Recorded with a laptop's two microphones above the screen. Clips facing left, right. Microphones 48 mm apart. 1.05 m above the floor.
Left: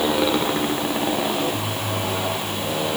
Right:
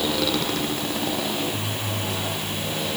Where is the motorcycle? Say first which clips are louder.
Left 4 dB; 20° left (ahead or behind); by 3.0 s 25° left (ahead or behind).